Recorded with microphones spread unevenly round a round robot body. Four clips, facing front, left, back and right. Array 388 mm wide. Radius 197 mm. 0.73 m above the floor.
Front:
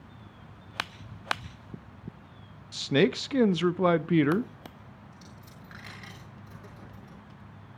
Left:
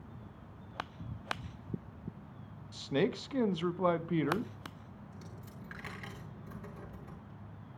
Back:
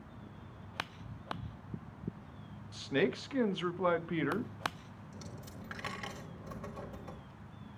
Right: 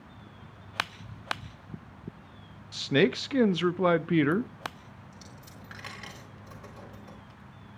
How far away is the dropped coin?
About 1.2 m.